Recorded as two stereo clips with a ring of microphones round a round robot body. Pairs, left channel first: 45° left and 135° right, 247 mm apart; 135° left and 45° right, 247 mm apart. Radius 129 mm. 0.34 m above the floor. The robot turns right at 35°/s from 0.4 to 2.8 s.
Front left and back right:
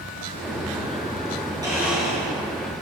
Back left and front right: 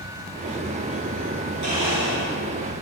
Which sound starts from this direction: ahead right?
A blender, at 1.6 s.